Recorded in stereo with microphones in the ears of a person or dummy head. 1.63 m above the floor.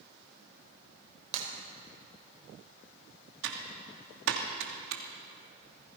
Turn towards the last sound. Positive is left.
turn(degrees=-80)